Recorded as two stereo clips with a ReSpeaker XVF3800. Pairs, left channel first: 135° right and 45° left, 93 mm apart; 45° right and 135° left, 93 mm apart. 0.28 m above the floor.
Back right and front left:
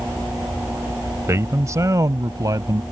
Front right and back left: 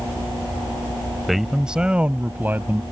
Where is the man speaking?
45° left; by 2.8 s 75° left.